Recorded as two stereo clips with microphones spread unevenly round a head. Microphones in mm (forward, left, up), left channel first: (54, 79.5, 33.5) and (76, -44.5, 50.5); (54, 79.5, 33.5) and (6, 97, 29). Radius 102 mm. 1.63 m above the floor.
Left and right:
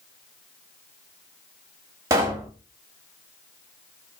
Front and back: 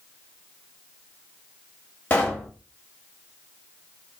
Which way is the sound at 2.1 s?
55° right.